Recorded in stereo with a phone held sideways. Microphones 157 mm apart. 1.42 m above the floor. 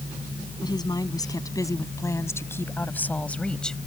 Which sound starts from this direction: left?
A woman speaking, at 0.6 s.